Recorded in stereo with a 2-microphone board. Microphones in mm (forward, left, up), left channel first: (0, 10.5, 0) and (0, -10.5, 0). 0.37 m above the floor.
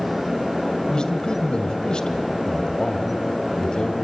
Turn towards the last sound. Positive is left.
turn(degrees=40)  # may be behind; listen again after turning